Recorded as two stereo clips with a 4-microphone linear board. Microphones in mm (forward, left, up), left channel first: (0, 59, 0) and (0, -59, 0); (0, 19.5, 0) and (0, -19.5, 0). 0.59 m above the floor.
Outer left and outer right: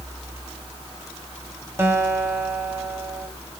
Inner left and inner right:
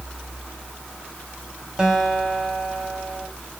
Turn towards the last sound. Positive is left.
turn(degrees=-20)  # may be behind; listen again after turning